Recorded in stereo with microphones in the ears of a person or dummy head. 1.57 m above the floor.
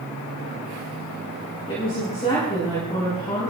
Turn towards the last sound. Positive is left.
turn(degrees=25)  # may be behind; listen again after turning